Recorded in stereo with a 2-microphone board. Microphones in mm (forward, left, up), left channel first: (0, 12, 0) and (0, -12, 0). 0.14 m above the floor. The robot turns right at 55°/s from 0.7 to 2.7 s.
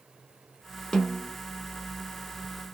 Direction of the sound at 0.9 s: 25° left (ahead or behind).